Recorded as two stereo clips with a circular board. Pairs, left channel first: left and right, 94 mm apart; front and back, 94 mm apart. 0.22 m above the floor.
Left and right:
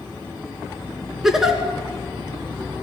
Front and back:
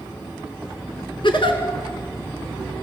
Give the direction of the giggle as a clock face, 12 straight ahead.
12 o'clock.